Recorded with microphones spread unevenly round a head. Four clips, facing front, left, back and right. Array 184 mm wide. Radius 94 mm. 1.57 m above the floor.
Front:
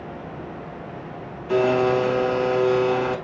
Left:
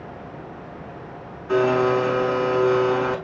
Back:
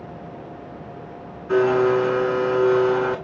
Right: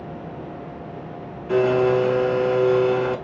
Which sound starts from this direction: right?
A blender, at 1.5 s.